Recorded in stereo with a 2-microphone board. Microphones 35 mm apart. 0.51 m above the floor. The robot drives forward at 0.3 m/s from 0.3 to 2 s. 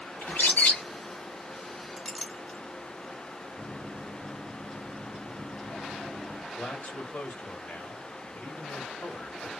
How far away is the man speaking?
About 1.7 m.